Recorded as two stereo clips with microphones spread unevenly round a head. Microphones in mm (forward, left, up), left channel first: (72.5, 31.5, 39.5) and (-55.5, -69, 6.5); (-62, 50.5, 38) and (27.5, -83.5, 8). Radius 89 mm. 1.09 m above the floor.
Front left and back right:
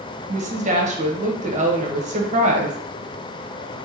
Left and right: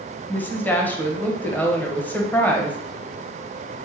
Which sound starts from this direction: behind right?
A woman speaking, at 0.3 s.